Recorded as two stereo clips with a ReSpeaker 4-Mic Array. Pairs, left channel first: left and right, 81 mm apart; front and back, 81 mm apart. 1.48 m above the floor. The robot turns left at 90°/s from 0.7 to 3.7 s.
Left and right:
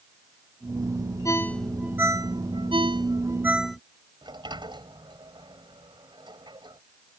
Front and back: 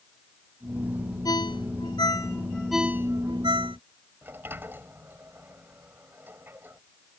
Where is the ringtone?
40° left; by 3.8 s straight behind.